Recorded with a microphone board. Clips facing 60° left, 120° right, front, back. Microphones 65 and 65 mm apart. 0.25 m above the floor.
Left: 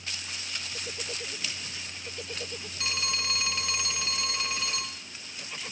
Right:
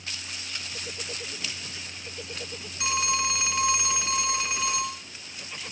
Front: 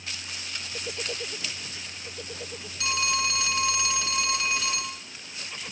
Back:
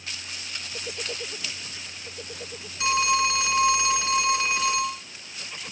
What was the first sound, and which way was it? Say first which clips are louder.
A phone ringing: right 7 dB, back 6 dB; 170° right.